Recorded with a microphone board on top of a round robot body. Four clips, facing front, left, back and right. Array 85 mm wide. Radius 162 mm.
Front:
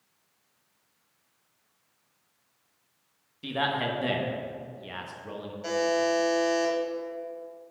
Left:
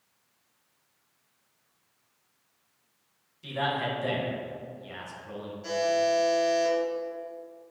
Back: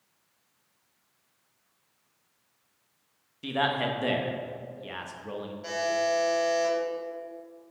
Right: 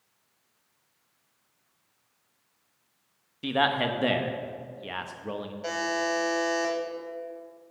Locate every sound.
3.4 s a man speaking: 100° right, 1.2 m
5.6 s a buzzer: 80° right, 2.5 m